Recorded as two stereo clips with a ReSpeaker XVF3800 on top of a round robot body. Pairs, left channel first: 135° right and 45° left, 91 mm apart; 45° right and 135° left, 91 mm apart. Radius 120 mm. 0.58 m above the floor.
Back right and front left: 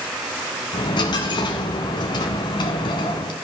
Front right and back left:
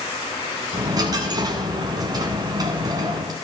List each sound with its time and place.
0.7 s a dropped coin: 175° right, 0.8 m